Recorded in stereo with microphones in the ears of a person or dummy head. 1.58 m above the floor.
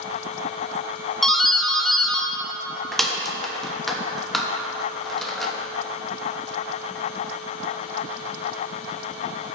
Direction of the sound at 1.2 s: Centre (ahead or behind).